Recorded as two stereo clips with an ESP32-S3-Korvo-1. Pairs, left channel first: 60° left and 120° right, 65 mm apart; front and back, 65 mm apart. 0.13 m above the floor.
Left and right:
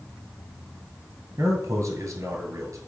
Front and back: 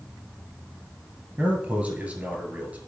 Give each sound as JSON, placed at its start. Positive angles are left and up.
{"t": 1.4, "sound": "a man speaking", "azimuth_deg": -115, "distance_m": 2.0}